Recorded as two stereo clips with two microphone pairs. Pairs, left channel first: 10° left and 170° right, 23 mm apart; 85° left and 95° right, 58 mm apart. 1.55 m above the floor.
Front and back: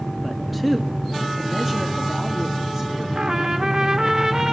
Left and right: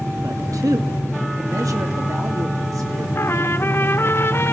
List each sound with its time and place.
0.2 s a man speaking: 75° right, 1.7 m; by 3.0 s 95° right, 4.5 m
3.1 s a trumpet: 130° left, 1.4 m